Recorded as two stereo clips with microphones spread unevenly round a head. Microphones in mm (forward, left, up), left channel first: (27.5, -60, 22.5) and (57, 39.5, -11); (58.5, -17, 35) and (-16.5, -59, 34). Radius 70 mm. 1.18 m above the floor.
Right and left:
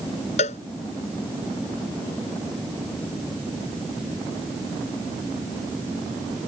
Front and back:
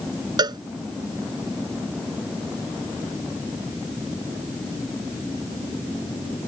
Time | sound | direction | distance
0.4 | a cowbell | 115° right | ?